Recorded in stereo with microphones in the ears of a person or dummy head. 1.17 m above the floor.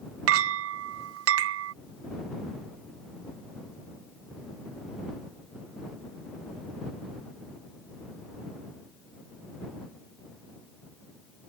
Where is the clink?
70° right (ahead or behind).